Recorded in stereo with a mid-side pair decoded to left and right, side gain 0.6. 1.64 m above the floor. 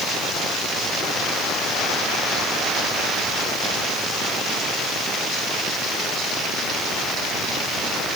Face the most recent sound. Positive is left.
No sound to turn to.